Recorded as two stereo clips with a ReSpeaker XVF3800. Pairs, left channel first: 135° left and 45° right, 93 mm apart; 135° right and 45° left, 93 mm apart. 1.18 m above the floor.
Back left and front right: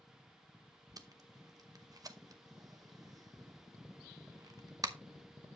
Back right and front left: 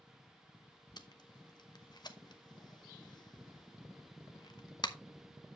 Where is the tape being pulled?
95° right, 0.8 m.